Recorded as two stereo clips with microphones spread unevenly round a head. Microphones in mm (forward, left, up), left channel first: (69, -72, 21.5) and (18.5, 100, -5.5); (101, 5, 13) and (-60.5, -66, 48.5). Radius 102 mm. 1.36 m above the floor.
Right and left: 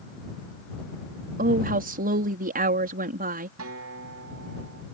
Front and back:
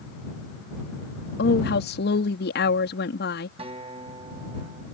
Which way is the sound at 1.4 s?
65° left.